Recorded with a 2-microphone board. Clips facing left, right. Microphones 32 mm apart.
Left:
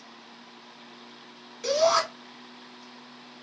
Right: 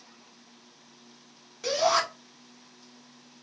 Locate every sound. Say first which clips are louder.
1.6 s a shout: left 2 dB; centre (ahead or behind), 1.1 m